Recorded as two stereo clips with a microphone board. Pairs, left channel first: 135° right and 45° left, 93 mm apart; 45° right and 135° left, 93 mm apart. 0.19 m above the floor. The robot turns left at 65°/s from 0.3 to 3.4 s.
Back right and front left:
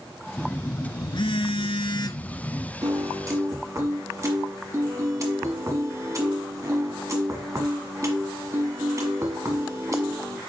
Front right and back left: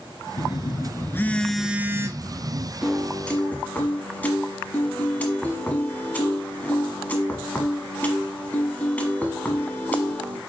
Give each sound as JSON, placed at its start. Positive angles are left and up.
{"t": 0.4, "sound": "a phone buzzing", "azimuth_deg": -60, "distance_m": 0.5}
{"t": 2.8, "sound": "a piano", "azimuth_deg": 55, "distance_m": 1.4}